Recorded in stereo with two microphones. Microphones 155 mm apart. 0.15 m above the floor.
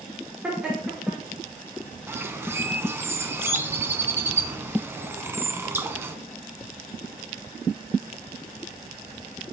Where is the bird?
15° right (ahead or behind), 1.0 m.